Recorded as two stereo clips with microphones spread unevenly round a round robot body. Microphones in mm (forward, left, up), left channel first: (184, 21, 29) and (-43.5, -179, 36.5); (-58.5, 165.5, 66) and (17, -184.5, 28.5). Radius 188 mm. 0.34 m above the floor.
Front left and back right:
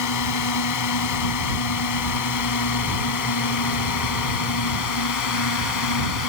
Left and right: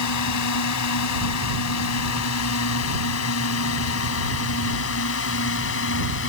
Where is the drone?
60° left; by 6.3 s 45° left.